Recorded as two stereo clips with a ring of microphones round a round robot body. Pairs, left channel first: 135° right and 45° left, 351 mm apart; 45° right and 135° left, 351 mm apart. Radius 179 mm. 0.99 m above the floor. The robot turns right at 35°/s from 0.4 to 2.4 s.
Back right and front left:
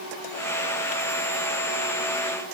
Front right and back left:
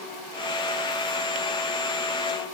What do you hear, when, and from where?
Only background noise.